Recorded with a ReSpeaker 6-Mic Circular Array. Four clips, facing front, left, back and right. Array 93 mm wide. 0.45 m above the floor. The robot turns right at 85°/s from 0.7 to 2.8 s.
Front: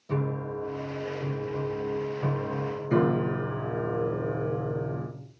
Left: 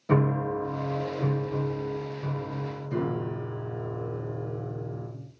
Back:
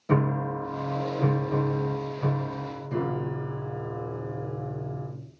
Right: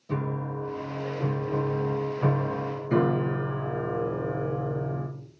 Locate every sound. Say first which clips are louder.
0.1 s a piano: left 6 dB, back 5 dB; 130° left, 1.2 m; by 5.1 s 50° right, 1.2 m